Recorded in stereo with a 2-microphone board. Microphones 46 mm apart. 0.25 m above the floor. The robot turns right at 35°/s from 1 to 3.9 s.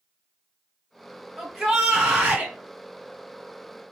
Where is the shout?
170° left, 2 m; by 2.5 s 150° right, 2 m.